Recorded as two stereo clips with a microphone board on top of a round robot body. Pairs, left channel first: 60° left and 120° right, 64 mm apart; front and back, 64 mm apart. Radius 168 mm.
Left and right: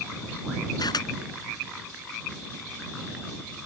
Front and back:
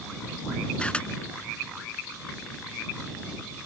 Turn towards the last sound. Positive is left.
turn(degrees=75)